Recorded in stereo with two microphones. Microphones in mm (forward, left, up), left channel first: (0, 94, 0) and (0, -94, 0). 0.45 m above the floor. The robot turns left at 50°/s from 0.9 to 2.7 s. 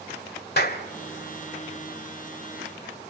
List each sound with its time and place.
0.6 s a clap: 60° left (ahead or behind), 1.6 m